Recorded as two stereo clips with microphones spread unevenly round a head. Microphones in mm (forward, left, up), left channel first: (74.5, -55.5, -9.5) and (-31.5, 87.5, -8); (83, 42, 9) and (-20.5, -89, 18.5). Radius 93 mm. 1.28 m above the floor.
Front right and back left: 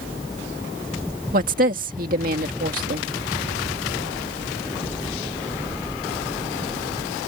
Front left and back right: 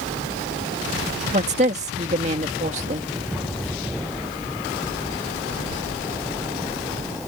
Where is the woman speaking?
175° left.